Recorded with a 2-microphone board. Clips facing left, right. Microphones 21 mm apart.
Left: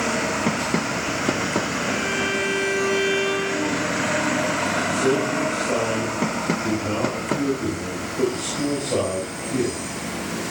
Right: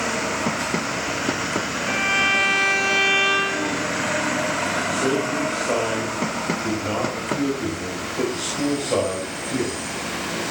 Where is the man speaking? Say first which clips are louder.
Left 1 dB; 30° right (ahead or behind), 6 m.